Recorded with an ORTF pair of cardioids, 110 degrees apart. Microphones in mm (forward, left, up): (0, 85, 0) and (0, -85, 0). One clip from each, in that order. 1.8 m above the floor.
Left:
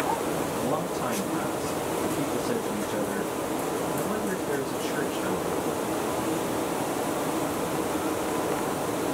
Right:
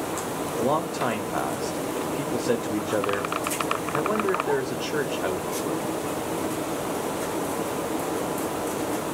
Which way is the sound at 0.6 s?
60° right.